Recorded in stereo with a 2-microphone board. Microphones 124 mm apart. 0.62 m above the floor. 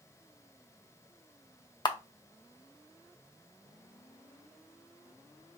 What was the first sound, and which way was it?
A camera shutter, 35° left (ahead or behind).